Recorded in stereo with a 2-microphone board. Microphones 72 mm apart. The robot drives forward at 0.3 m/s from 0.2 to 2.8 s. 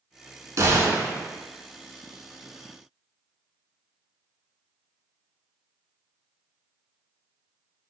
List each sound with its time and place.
0.6 s a gunshot: 45° right (ahead or behind), 0.6 m; by 1.2 s 35° right (ahead or behind), 0.7 m